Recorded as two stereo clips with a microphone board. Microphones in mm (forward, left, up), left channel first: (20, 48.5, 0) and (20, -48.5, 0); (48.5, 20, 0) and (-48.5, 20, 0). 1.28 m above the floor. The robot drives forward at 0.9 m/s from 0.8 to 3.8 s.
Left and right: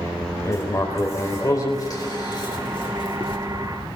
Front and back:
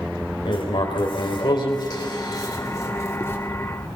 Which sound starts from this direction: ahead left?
Writing, at 0.5 s.